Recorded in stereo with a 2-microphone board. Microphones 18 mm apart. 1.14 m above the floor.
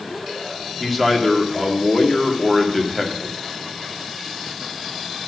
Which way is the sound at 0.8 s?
Centre (ahead or behind).